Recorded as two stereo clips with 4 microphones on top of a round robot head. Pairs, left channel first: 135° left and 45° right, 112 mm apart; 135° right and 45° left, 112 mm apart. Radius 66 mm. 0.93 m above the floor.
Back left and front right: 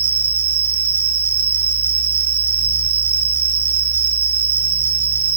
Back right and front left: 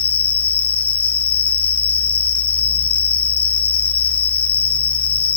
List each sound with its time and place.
0.0 s an insect: 95° right, 3.5 m